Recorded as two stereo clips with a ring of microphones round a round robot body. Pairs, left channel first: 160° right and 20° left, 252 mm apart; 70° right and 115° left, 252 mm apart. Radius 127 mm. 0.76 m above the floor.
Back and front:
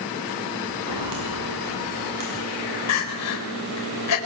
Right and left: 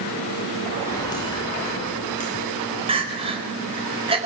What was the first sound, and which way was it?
Footsteps, 10° left.